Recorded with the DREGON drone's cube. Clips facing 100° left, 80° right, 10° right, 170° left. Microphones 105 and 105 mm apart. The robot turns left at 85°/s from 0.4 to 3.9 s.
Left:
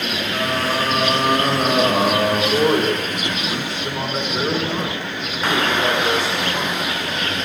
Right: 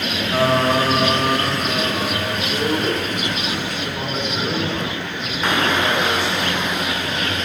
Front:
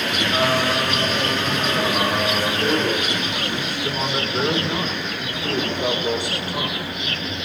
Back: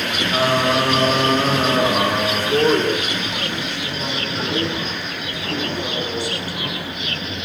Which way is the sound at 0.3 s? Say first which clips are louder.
Right 6 dB, back 4 dB; 110° right.